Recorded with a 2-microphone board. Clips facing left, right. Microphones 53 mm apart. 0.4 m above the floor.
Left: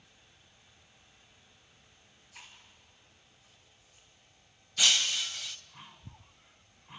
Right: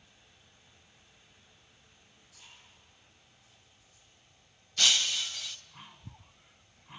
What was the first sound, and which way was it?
Chewing, 85° left.